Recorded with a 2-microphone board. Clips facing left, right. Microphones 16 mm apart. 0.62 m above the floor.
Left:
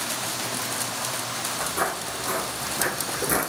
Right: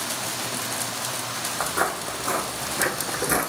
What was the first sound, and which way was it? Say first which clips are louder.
Footsteps: right 3 dB; 55° right (ahead or behind).